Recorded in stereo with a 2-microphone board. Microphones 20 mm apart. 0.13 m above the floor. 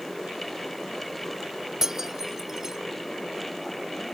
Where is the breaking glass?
25° right (ahead or behind).